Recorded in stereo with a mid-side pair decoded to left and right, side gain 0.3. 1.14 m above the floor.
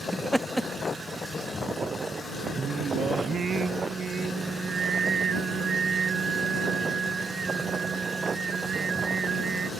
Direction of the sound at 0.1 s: 10° right.